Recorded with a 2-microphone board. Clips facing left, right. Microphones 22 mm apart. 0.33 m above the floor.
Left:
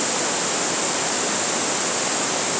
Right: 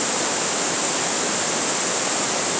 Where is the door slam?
No door slam in this recording.